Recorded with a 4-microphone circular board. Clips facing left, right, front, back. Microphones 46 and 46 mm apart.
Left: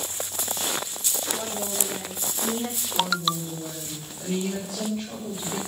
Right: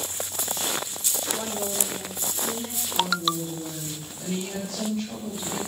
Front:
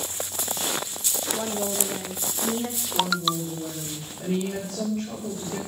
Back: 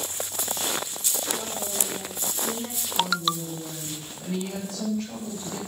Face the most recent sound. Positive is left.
turn(degrees=15)